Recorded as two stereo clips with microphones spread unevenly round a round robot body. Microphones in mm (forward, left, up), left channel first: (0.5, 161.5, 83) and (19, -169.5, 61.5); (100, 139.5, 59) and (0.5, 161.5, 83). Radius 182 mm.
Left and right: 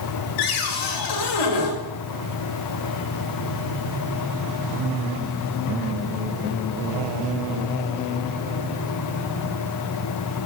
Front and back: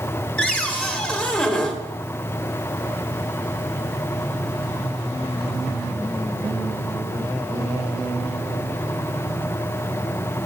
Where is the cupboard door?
65° left, 2.5 m.